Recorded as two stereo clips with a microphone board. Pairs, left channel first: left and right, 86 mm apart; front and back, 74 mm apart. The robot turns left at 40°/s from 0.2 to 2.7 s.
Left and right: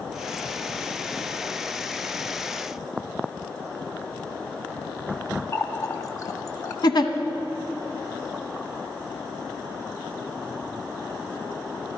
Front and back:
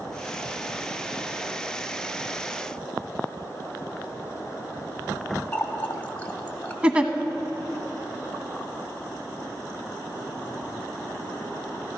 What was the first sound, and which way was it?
A running tap, 65° left.